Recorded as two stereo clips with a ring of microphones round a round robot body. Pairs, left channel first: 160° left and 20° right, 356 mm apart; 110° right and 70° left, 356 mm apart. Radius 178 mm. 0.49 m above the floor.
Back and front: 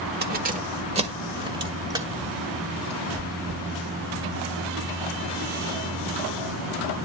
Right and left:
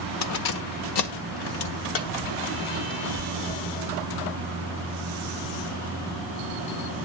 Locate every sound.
0.2 s keys jangling: 80° right, 1.2 m; by 3.0 s 105° right, 3 m
3.2 s chewing: 70° right, 2 m